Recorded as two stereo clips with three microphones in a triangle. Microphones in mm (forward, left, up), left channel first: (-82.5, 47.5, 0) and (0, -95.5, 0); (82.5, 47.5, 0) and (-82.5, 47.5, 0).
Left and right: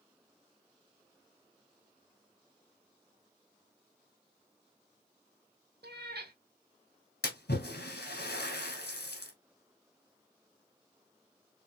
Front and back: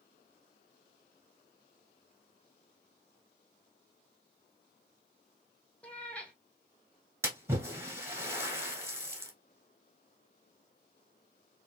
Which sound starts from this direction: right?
A cat meowing, at 5.8 s.